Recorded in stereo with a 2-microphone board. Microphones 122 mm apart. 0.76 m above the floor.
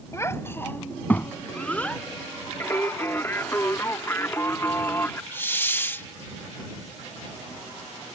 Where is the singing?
20° left (ahead or behind).